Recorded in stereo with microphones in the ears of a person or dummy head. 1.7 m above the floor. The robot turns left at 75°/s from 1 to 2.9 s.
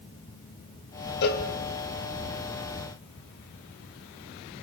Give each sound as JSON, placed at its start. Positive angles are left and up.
{"t": 1.2, "sound": "a cowbell", "side_deg": 55, "distance_m": 1.3}